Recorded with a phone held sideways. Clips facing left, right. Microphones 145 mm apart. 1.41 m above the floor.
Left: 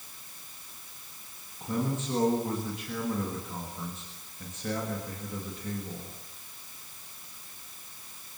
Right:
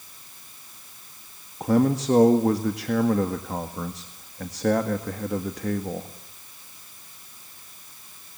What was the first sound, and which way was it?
A man speaking, 80° right.